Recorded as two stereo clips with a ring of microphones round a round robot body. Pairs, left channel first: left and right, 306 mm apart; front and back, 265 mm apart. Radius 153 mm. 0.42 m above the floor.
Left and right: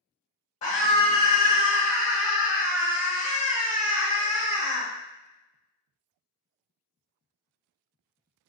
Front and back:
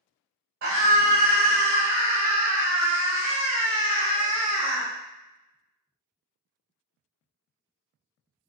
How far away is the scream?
About 2.0 m.